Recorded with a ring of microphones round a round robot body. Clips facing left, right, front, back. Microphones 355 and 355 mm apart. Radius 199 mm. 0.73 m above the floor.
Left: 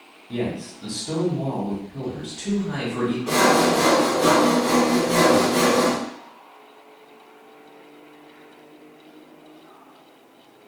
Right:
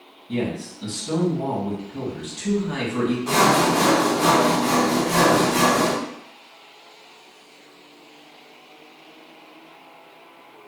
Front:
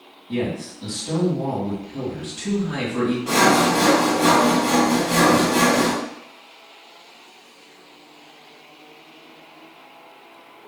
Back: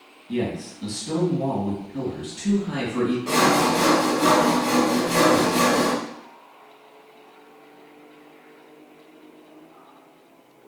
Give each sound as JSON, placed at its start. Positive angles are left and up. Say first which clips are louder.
{"t": 0.3, "sound": "a man speaking", "louder": "right 1 dB, front 1 dB", "azimuth_deg": -110, "distance_m": 1.9}
{"t": 3.3, "sound": "sawing", "louder": "left 1 dB, front 2 dB", "azimuth_deg": -95, "distance_m": 1.2}